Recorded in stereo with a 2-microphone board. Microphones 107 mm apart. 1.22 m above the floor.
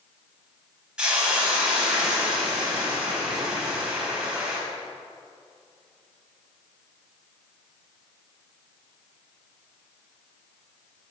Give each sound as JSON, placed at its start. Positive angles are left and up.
{"t": 1.0, "sound": "a hiss", "side_deg": -10, "distance_m": 3.5}